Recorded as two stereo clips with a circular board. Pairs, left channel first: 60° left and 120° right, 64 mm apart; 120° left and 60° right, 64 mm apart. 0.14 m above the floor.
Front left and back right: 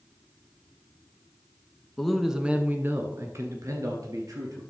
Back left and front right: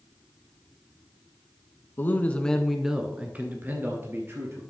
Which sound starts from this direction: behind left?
A man speaking, at 2.0 s.